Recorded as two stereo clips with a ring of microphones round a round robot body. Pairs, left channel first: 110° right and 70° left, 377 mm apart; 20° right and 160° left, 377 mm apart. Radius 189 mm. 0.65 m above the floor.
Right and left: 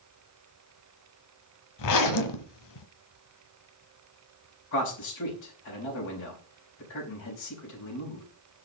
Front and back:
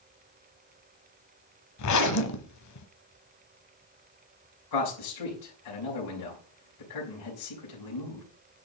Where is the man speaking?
55° right, 4.5 m.